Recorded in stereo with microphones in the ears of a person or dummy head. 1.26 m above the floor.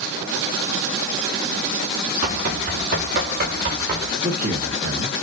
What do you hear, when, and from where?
2.2 s running footsteps: 45° right (ahead or behind), 4.5 m; by 4.1 s 50° right (ahead or behind), 3.5 m
4.2 s a man speaking: 40° right (ahead or behind), 1.4 m